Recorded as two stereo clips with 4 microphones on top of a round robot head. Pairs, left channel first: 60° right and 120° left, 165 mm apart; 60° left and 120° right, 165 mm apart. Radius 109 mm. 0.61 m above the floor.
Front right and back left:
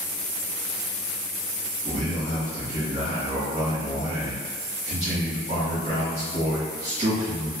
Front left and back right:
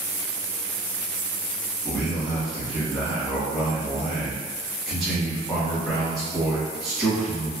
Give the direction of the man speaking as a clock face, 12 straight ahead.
7 o'clock.